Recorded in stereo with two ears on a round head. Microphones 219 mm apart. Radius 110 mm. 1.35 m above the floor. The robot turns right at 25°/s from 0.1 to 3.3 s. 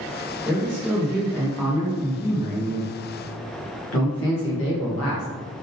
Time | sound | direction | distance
0.5 | a man speaking | 15° right | 1.6 m